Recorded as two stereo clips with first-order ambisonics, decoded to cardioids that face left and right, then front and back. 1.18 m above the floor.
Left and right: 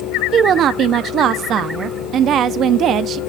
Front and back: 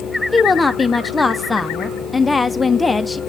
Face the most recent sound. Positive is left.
turn(degrees=-80)